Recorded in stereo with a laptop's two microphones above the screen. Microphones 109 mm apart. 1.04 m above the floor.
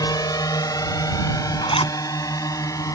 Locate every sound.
0.0 s a drone: 35° left (ahead or behind); by 3.0 s 30° left (ahead or behind)
1.6 s a zipper: 55° left (ahead or behind)